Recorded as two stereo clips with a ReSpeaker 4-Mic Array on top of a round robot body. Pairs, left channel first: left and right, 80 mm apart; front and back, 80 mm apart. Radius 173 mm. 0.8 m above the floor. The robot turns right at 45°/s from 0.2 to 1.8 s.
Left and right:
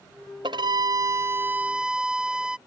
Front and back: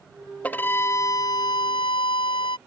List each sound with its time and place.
0.4 s a violin: 70° right; by 2.6 s 10° right